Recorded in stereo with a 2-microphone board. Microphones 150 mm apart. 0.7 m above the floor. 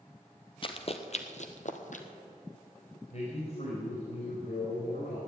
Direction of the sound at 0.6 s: 35° left (ahead or behind).